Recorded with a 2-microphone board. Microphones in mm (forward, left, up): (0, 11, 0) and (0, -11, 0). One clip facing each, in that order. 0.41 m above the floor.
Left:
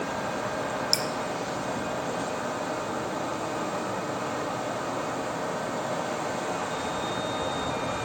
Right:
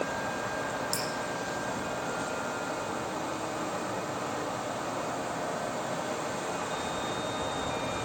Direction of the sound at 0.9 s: 60° left (ahead or behind).